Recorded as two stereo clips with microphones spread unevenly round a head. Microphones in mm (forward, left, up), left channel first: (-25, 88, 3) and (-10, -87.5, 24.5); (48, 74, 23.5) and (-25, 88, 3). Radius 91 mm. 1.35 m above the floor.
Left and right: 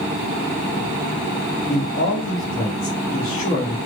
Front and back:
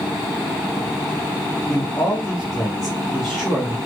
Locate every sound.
1.7 s a man speaking: 75° left, 1.2 m